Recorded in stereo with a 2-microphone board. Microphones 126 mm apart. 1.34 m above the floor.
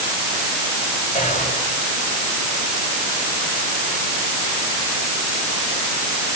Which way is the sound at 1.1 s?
85° left.